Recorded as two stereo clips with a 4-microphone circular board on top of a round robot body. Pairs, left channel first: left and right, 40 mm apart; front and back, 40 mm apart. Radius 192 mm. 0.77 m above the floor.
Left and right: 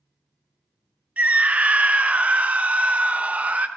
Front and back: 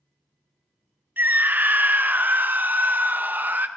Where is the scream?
145° right, 1.1 m.